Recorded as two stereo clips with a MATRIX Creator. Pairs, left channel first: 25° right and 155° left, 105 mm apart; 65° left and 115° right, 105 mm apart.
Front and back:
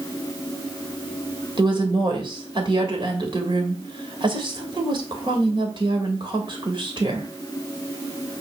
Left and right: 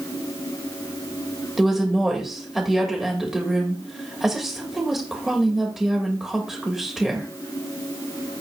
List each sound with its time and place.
1.6 s a woman speaking: 160° left, 2 m